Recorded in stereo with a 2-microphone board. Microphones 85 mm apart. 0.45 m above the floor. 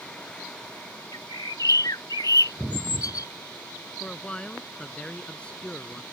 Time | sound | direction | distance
1.1 | a bird | 50° left (ahead or behind) | ?
4.0 | a man speaking | 10° left (ahead or behind) | ?